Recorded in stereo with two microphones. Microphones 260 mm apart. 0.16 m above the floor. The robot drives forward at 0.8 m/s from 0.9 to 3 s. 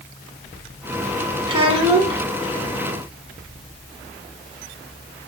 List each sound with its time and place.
1.5 s a child speaking: 20° right (ahead or behind), 0.7 m